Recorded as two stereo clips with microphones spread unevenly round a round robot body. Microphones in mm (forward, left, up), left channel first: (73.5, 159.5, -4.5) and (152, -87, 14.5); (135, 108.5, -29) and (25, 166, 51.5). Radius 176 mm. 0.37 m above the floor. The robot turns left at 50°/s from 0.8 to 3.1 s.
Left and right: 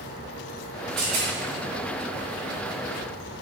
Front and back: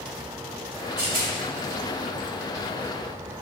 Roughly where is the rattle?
Right.